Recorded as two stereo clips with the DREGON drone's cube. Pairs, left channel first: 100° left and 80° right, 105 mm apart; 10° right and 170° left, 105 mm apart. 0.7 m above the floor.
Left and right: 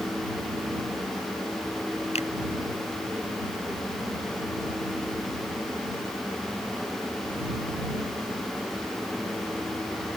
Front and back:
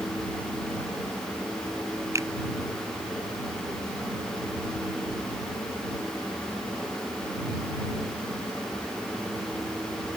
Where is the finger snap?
110° left.